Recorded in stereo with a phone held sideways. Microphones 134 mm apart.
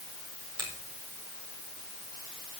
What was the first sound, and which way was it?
A finger snap, 35° right (ahead or behind).